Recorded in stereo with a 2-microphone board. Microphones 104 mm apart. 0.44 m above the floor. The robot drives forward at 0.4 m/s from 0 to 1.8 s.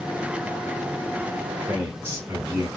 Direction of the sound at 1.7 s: 25° right (ahead or behind).